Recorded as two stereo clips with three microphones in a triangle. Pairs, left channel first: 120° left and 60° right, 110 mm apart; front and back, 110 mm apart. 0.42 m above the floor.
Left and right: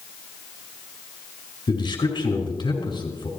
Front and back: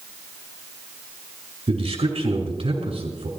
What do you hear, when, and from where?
1.7 s a man speaking: 160° left, 5.5 m